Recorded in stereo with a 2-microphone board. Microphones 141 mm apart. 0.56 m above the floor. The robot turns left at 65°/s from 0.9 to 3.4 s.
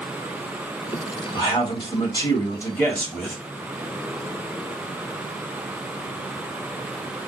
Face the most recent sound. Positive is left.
turn(degrees=-10)